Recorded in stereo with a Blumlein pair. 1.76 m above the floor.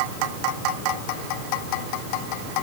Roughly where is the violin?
No violin in this recording.